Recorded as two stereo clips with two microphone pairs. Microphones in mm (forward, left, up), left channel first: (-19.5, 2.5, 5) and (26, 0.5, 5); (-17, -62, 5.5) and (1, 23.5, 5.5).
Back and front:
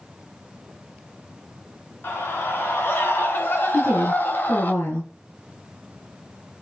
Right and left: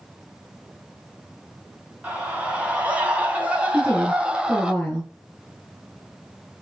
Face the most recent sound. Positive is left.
turn(degrees=175)